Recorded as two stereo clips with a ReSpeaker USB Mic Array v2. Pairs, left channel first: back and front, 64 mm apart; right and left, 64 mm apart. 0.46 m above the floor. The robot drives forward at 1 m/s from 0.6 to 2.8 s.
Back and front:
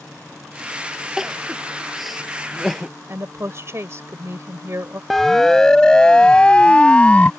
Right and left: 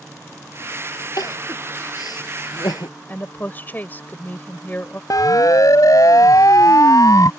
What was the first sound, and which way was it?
Crying, 85° right.